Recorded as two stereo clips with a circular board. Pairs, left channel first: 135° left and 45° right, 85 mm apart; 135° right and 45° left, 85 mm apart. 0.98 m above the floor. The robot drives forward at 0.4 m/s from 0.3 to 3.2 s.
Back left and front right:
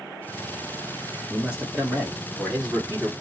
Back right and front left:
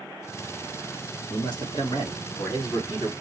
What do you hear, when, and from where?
1.3 s a man speaking: 120° right, 1.1 m; by 3.1 s 145° right, 1.5 m